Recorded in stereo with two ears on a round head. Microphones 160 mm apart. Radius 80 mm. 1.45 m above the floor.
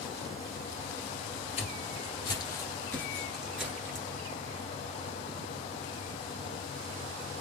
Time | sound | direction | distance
1.6 | footsteps | 35° left (ahead or behind) | 1.9 m